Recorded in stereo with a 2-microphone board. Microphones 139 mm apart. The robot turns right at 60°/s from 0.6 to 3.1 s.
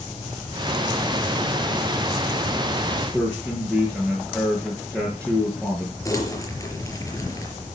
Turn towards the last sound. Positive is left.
turn(degrees=25)  # may be behind; listen again after turning